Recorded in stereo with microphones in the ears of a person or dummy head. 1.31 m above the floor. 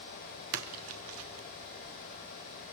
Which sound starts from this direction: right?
A splash, at 0.5 s.